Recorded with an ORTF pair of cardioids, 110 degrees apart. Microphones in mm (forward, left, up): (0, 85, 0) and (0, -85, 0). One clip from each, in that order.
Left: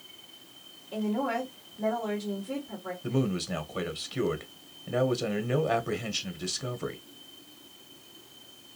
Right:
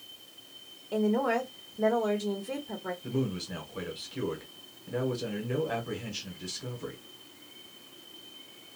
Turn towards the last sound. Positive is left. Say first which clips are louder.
# left 6 dB
turn(degrees=35)